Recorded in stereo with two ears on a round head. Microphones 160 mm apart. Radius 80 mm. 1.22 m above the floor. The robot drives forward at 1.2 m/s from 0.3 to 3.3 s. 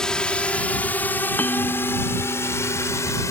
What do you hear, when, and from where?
0.0 s a drone: 5° left (ahead or behind); by 3.3 s 15° left (ahead or behind)
1.4 s a bell: 10° left (ahead or behind)